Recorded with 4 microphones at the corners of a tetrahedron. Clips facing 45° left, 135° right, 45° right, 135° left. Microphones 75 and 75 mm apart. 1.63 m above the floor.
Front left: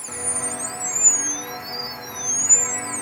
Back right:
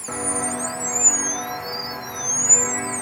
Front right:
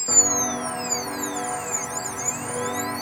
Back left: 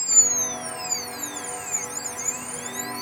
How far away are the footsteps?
About 4 m.